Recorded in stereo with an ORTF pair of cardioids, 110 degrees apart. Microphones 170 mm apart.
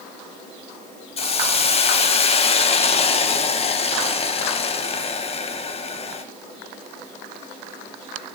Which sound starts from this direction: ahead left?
A hiss, at 1.2 s.